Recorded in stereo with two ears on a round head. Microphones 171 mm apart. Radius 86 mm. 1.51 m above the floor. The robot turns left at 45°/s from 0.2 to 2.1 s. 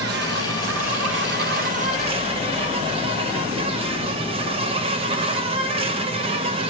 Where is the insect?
60° right, 0.8 m; by 6.7 s 145° right, 0.8 m.